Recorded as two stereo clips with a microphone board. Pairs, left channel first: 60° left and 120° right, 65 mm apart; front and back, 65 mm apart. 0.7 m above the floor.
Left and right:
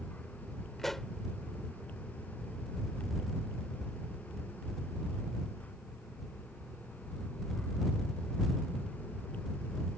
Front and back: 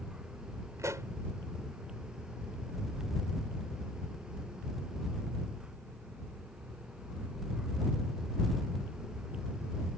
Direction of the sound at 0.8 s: 145° left.